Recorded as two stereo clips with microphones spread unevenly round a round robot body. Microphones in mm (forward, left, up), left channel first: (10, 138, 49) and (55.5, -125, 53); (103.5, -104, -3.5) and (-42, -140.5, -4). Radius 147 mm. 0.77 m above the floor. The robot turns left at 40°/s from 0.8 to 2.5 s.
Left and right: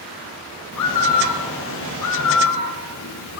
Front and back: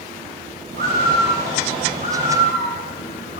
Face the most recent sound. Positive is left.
turn(degrees=65)